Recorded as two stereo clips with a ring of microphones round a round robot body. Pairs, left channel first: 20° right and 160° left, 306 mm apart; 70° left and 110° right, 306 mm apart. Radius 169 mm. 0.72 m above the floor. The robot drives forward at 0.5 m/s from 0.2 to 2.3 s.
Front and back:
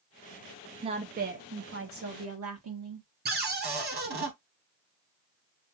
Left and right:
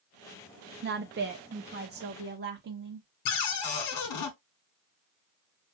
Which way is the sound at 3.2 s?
95° left.